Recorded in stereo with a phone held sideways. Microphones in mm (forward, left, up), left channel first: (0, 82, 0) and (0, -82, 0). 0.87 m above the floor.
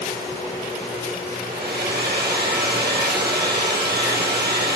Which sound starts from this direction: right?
A hair dryer, at 1.4 s.